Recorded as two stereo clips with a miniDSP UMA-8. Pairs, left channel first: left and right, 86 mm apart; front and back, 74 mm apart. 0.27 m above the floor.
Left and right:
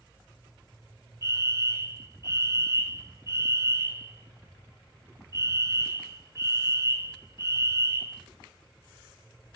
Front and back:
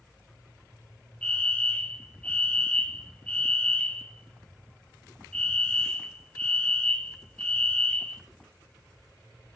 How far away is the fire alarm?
About 2.5 m.